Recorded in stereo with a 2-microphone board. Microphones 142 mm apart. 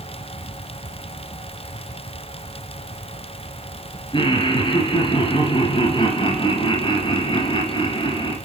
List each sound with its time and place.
4.1 s laughter: 35° left (ahead or behind), 2.5 m